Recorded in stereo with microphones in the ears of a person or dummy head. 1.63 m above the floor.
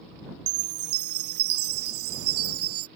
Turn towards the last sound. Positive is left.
turn(degrees=-85)